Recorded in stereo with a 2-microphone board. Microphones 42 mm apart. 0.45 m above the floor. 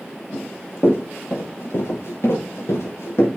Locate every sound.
0.3 s running footsteps: 70° left (ahead or behind), 6 m; by 3.3 s 85° left, 4.5 m